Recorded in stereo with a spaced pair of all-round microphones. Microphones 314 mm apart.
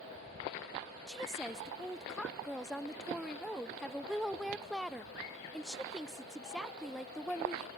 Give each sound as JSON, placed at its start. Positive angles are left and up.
{"t": 1.1, "sound": "a woman speaking", "side_deg": 0, "distance_m": 0.6}